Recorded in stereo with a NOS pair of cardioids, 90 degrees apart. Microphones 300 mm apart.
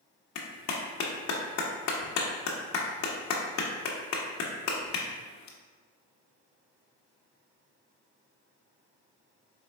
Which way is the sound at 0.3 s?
65° left.